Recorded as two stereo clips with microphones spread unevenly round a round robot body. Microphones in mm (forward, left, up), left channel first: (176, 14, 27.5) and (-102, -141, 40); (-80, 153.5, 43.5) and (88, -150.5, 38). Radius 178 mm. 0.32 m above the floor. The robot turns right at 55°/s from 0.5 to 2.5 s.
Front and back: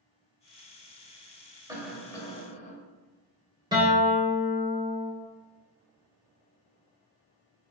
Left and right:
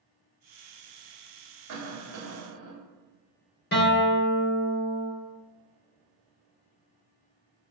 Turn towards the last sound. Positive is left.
turn(degrees=140)